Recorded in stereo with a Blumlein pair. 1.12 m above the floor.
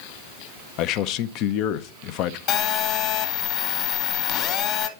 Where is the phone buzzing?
35° left, 1.6 m.